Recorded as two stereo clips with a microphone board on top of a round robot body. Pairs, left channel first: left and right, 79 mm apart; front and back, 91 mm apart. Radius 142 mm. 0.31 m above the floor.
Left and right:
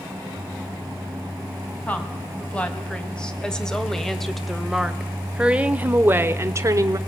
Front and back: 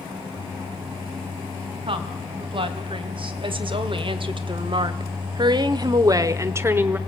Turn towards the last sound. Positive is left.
turn(degrees=-115)